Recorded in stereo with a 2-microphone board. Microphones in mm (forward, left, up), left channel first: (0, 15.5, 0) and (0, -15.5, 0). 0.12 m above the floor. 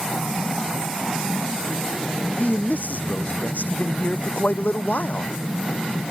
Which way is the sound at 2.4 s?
65° left (ahead or behind).